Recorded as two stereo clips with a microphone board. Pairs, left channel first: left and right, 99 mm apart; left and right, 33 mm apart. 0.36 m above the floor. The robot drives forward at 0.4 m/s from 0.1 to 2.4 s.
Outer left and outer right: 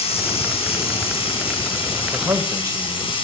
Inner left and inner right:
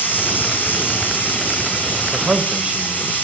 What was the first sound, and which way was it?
Running water, 80° left.